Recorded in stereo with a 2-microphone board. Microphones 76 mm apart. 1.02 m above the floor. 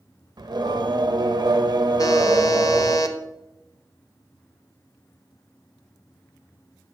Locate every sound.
0.4 s singing: 65° right (ahead or behind), 1.0 m
2.0 s a buzzer: 50° left (ahead or behind), 1.1 m